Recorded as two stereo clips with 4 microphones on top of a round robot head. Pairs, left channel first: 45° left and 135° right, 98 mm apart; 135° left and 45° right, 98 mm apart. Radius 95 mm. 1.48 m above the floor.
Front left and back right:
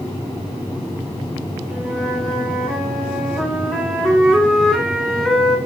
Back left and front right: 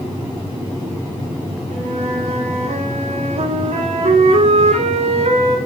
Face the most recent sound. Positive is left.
turn(degrees=-40)